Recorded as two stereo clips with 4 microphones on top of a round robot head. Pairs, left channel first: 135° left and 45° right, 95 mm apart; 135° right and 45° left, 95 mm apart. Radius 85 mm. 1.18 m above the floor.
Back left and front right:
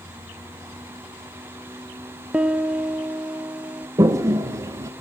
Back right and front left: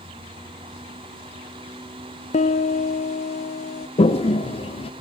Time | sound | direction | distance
2.3 | a piano | 125° right | 0.5 m
4.0 | a toilet flushing | 105° right | 0.7 m